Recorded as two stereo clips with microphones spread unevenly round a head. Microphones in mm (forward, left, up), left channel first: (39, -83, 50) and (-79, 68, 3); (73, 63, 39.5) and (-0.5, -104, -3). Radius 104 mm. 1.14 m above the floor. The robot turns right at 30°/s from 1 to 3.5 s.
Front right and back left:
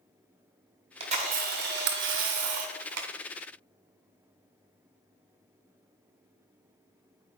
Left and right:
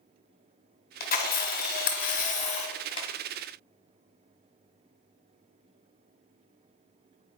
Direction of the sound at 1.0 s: 60° left.